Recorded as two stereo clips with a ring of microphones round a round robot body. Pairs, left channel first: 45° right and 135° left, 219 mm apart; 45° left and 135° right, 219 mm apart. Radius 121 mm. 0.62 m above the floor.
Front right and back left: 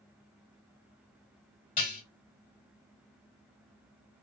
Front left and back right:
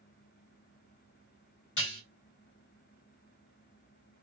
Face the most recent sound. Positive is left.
turn(degrees=10)